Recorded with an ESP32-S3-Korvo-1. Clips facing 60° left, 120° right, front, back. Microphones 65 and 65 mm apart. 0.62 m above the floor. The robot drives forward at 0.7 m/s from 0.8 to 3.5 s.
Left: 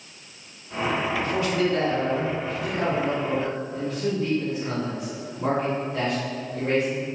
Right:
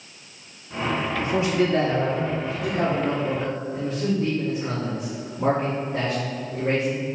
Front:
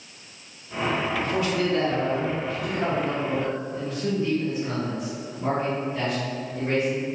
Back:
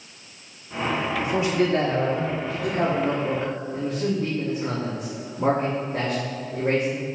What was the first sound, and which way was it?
A man speaking, 130° right.